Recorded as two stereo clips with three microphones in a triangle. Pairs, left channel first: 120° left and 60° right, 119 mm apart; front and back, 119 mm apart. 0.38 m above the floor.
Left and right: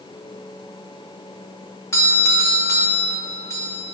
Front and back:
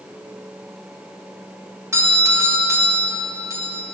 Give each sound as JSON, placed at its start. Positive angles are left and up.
{"t": 1.9, "sound": "a doorbell", "azimuth_deg": 150, "distance_m": 1.3}